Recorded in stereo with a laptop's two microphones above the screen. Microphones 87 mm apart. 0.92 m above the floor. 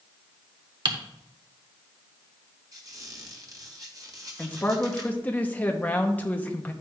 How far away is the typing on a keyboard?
About 1.1 m.